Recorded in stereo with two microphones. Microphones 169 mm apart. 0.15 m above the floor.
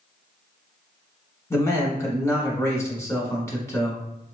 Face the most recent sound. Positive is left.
turn(degrees=20)  # may be behind; listen again after turning